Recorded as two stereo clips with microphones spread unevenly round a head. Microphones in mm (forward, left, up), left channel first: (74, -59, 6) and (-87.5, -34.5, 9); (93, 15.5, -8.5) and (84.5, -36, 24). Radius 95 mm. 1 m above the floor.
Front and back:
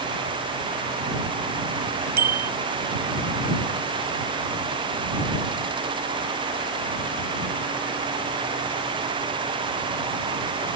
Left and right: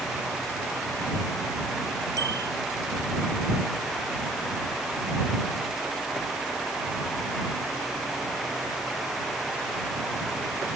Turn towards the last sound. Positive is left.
turn(degrees=-160)